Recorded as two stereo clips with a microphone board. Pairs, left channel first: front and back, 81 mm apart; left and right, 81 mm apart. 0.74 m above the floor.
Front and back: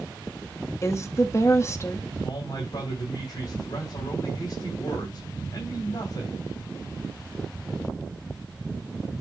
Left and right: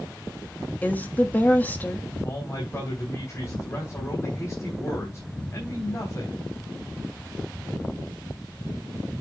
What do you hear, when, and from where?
0.8 s a woman speaking: 35° left, 1.3 m
2.2 s a man speaking: 35° left, 4 m